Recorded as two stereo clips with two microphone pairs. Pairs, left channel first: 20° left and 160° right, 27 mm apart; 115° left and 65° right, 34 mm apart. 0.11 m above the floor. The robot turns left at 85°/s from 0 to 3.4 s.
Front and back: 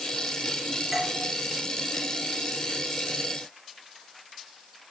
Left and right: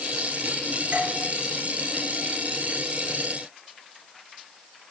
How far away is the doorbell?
About 1.9 m.